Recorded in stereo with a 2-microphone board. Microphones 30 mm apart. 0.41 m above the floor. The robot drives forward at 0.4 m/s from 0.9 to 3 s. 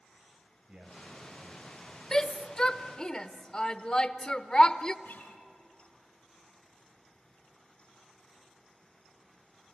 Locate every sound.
0.7 s a man speaking: 40° right (ahead or behind), 2.5 m; by 2.0 s 35° right (ahead or behind), 3 m
2.1 s a shout: 30° left (ahead or behind), 0.9 m
5.0 s a guitar: 80° left, 3 m